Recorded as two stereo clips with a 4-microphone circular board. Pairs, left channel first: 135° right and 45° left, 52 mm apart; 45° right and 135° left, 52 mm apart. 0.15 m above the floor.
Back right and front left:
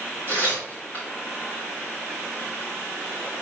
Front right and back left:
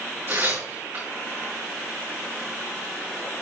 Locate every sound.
0.3 s tearing paper: 170° left, 4 m